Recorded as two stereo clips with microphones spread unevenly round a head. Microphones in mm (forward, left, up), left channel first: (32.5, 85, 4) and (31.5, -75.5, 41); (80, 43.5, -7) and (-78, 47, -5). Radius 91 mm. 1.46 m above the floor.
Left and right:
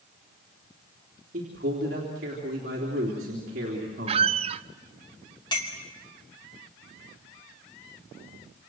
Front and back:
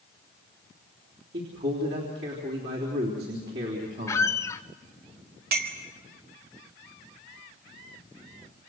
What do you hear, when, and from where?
1.3 s a man speaking: 140° right, 3.5 m
4.1 s a squeak: 70° right, 0.5 m
5.5 s a clink: 160° left, 2.5 m